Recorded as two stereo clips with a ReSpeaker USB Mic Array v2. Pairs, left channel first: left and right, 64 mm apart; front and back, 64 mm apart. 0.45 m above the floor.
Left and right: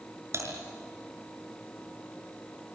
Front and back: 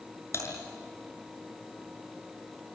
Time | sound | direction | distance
0.3 | typing on a keyboard | 45° right | 6 m